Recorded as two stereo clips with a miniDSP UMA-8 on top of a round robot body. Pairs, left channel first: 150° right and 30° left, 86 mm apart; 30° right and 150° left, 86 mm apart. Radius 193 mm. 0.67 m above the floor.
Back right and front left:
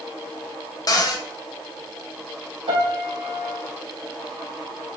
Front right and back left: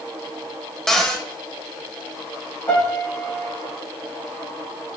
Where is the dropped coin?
I don't hear a dropped coin.